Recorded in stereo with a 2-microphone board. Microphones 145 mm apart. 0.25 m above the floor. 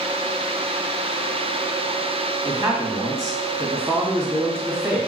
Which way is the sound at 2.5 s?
10° right (ahead or behind).